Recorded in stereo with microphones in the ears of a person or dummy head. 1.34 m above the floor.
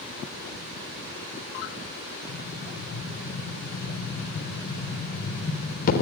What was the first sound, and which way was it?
An explosion, 50° left (ahead or behind).